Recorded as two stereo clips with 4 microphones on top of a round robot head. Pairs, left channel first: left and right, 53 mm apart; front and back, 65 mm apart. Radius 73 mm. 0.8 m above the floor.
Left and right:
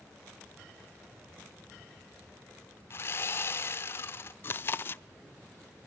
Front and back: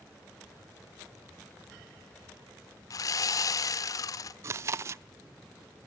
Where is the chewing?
135° left, 0.5 m.